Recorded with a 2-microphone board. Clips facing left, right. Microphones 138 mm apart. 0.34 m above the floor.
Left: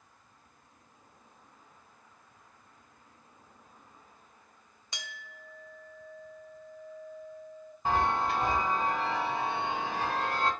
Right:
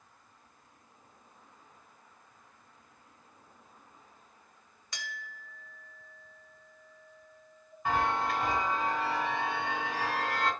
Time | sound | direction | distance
4.9 | a clink | 20° left (ahead or behind) | 0.7 m
7.8 | a chime | 30° left (ahead or behind) | 1.1 m